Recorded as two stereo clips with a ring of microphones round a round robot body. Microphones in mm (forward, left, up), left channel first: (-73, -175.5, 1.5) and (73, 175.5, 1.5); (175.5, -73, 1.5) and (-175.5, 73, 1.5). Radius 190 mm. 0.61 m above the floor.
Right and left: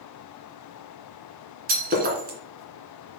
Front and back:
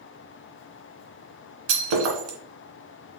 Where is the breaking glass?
135° left, 1.9 m.